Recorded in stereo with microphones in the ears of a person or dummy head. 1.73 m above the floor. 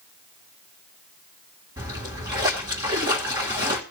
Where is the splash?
20° right (ahead or behind), 1.5 m.